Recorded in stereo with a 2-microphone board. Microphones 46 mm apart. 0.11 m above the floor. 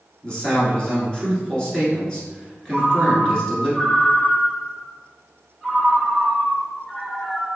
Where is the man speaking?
20° left (ahead or behind), 1.3 m.